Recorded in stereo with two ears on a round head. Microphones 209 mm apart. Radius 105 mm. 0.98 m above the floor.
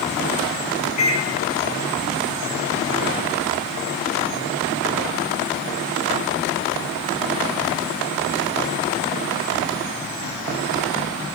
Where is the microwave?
75° left (ahead or behind), 2 m.